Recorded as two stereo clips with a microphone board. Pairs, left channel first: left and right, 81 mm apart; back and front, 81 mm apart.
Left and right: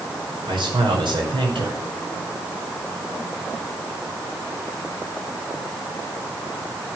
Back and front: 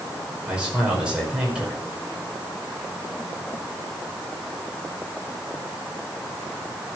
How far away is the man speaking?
About 5 m.